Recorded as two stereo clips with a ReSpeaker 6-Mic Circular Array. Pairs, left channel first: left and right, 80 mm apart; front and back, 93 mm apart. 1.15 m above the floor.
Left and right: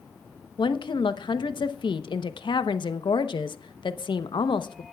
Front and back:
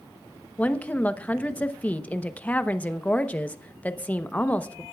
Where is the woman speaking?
75° left, 0.9 m.